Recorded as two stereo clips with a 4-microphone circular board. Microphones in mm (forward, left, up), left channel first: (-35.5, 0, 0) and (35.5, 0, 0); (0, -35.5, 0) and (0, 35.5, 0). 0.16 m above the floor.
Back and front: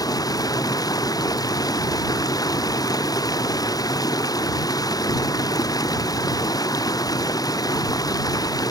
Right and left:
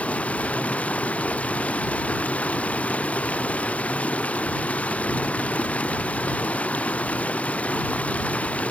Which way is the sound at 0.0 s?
160° right.